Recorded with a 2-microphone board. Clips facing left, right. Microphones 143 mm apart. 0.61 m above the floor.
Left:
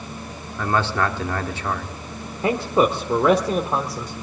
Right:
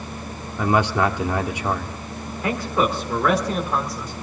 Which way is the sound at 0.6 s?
15° right (ahead or behind).